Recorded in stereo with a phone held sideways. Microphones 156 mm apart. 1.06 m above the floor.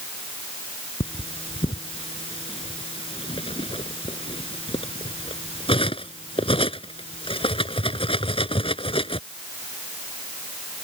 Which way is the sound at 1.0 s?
35° left (ahead or behind).